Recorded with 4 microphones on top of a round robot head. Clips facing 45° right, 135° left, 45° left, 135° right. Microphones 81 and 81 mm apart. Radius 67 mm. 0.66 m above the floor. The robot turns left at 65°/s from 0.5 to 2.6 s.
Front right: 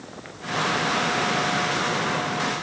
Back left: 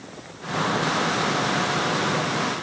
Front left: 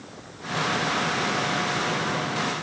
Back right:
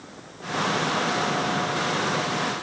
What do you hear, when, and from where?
Only background noise.